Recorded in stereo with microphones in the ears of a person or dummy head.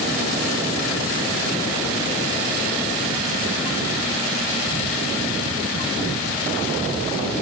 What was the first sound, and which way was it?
Only background noise.